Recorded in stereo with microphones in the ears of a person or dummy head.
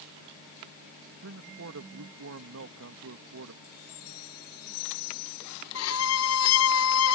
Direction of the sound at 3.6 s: 85° left.